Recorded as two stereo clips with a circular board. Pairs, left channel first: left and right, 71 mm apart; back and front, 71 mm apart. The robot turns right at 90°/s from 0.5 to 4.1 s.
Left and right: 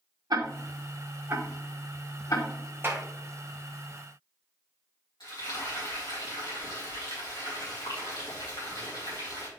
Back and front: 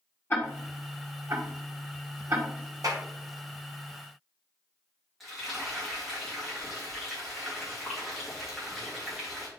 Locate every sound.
0.3 s ticking: 120° right, 1.7 m; by 2.5 s 60° left, 1.7 m
2.8 s a clap: 35° right, 1.3 m; by 3.0 s 15° right, 1.3 m
5.2 s frying: 90° left, 3.5 m